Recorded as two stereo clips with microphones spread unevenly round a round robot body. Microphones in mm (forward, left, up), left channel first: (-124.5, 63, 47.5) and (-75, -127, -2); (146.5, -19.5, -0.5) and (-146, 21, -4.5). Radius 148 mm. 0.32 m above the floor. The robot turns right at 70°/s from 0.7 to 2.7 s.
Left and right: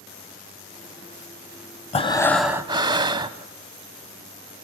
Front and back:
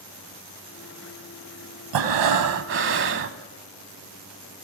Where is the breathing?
165° left, 1.0 m; by 3.4 s 140° right, 1.0 m.